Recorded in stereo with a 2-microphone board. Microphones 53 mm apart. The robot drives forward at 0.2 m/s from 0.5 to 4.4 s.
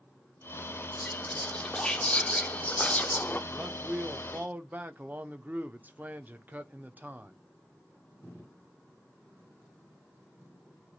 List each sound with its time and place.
1.0 s whispering: 15° left (ahead or behind), 1.0 m; by 3.4 s 30° left (ahead or behind), 0.5 m
3.5 s a man speaking: 25° right (ahead or behind), 0.7 m; by 7.3 s 30° right (ahead or behind), 0.5 m